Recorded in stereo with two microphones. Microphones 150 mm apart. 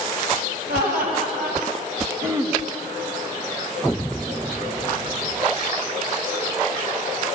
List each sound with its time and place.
0.7 s laughter: 80° right, 5 m
2.2 s throat clearing: 20° right (ahead or behind), 2 m